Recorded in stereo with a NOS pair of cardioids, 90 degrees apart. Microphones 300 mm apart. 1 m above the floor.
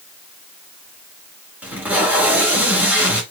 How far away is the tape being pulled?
About 1.5 m.